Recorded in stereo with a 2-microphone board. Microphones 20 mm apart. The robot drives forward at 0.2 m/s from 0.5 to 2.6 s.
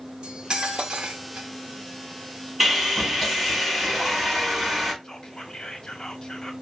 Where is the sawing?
10° right (ahead or behind), 2.5 m.